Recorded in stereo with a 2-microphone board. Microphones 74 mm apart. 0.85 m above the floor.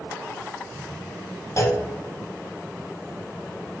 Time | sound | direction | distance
1.6 | a clunk | 40° left (ahead or behind) | 0.6 m